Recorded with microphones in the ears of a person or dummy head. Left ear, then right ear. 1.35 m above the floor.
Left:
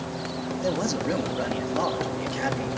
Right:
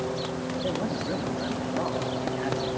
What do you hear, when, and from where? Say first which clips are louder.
0.6 s a man speaking: left 5 dB; 85° left, 3 m